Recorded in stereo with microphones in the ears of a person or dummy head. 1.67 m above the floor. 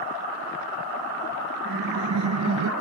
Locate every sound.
1.6 s laughter: 55° right (ahead or behind), 0.6 m; by 2.7 s 80° right, 1.1 m